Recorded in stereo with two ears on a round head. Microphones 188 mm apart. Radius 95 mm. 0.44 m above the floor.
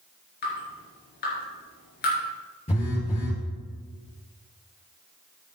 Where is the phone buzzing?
30° left (ahead or behind), 3 m.